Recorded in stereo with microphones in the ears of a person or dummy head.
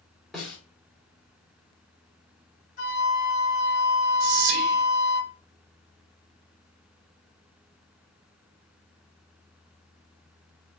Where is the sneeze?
I don't hear a sneeze.